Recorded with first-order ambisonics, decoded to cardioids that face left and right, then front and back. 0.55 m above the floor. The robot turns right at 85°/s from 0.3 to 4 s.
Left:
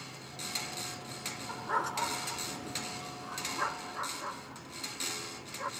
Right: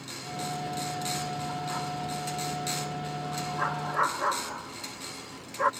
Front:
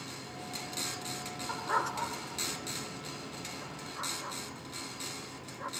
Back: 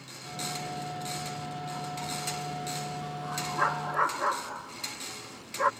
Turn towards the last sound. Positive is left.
turn(degrees=-140)